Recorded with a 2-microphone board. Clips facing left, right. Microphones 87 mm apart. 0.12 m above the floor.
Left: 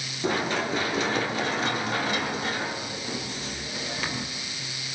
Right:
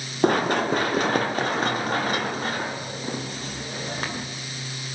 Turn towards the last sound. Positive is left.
turn(degrees=-40)  # may be behind; listen again after turning